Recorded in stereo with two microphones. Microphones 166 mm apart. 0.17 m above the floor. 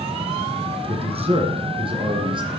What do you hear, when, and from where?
0.9 s a man speaking: 35° right (ahead or behind), 2.5 m; by 2.5 s 30° right (ahead or behind), 4 m